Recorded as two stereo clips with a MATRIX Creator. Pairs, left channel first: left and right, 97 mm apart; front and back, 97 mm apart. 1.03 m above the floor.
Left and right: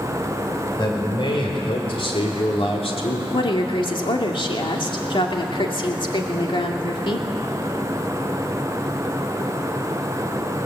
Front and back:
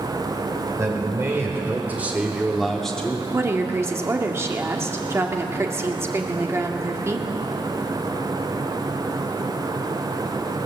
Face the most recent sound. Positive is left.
turn(degrees=120)